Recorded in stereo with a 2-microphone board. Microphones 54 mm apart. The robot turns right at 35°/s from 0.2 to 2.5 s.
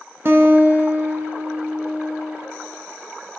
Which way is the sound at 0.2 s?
70° right.